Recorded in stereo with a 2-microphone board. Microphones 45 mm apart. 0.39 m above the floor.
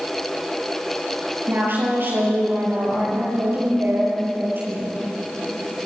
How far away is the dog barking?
I don't hear a dog barking.